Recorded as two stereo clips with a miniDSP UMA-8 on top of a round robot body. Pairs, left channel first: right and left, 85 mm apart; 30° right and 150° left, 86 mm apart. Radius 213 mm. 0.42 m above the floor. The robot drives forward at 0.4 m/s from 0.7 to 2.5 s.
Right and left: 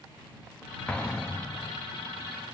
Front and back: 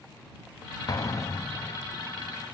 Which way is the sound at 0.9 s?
20° right.